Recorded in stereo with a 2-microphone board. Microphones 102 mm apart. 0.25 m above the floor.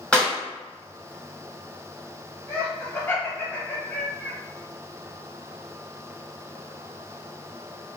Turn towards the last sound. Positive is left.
turn(degrees=20)  # may be behind; listen again after turning